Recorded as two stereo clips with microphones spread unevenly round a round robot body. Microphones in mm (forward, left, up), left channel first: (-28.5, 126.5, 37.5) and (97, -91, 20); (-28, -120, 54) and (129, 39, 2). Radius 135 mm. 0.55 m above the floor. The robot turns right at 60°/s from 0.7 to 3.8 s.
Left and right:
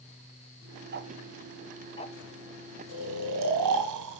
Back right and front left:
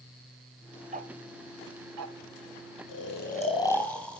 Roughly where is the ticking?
Ahead.